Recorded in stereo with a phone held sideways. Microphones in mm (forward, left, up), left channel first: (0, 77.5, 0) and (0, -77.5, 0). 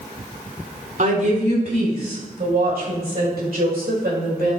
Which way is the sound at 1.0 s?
60° right (ahead or behind).